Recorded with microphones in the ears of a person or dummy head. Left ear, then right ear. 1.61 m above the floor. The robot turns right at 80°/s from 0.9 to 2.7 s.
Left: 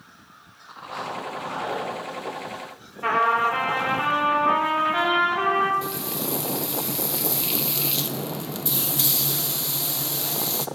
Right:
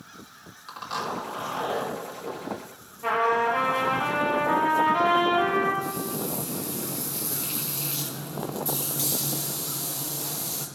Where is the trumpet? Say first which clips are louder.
Left 3 dB; 55° left (ahead or behind), 4 m.